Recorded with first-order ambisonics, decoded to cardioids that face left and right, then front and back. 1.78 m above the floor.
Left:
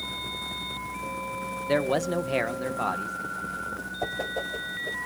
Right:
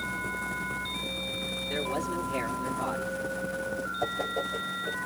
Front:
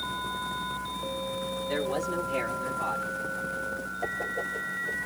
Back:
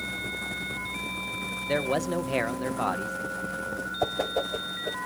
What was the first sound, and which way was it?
A man speaking, 115° left.